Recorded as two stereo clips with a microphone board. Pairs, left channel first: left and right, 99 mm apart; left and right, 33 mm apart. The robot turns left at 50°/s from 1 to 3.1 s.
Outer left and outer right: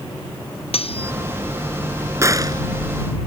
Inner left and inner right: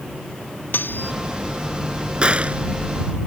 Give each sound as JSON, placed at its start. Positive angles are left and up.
{"t": 0.7, "sound": "cutlery clinking", "side_deg": 75}
{"t": 2.2, "sound": "a gunshot", "side_deg": -30}